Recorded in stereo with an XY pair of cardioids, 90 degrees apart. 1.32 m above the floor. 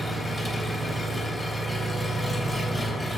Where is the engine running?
10° left, 3 m.